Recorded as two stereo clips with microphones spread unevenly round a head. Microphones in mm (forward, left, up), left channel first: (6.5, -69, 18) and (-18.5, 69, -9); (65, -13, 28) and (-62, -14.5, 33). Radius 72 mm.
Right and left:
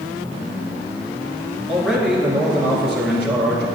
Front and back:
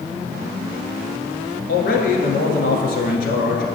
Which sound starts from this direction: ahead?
A man speaking, at 1.7 s.